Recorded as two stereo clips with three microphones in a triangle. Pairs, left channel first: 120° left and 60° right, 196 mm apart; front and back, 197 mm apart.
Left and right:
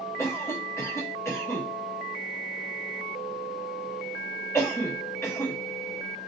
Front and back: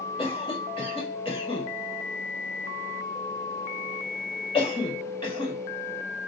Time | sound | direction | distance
0.2 | a cough | 50° left | 1.4 m